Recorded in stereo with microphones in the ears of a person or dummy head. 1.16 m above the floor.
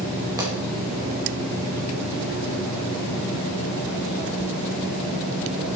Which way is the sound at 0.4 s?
15° right (ahead or behind).